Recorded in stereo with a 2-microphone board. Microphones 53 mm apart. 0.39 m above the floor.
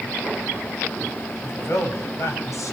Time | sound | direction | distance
1.4 | a man speaking | 50° left (ahead or behind) | 2 m